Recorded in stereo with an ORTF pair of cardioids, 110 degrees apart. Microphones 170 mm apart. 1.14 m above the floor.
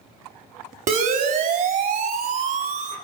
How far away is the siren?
About 4 m.